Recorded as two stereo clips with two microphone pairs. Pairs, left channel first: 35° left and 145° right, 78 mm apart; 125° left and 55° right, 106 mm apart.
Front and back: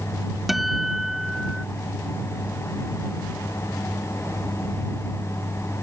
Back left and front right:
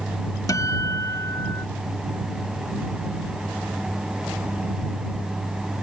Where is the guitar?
130° left.